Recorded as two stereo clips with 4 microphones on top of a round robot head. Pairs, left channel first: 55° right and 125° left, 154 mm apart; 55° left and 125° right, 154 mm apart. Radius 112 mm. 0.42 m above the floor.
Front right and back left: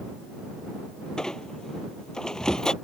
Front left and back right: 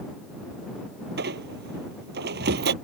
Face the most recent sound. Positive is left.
turn(degrees=-140)